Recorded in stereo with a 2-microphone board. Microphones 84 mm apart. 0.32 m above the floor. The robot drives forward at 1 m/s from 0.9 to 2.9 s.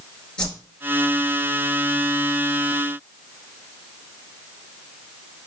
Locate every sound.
0.4 s a whoosh: 10° left (ahead or behind), 2.5 m